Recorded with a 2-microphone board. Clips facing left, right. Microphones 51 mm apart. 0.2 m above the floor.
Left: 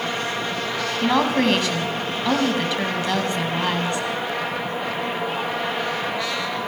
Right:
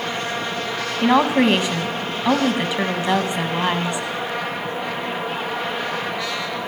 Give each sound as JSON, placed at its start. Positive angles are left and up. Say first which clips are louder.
{"t": 1.0, "sound": "a woman speaking", "louder": "right 4 dB", "side_deg": -20, "distance_m": 1.1}